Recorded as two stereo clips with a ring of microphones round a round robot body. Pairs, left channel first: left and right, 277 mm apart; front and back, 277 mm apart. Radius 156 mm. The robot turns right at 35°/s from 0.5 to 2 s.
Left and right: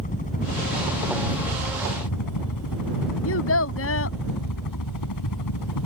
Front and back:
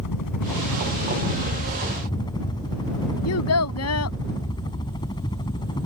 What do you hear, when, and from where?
0.0 s a helicopter: 25° left; by 5.9 s 75° left
3.2 s a child speaking: 40° left